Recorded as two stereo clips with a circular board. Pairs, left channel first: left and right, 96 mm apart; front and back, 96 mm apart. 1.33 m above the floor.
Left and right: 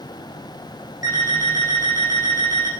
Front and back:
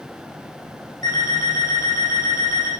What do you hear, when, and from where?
1.0 s an alarm clock: 40° right, 4.5 m